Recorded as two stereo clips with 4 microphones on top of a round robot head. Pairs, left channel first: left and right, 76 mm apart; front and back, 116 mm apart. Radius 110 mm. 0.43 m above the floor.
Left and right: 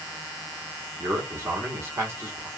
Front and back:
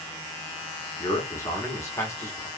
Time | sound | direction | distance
1.0 | a man speaking | 55° right | 1.0 m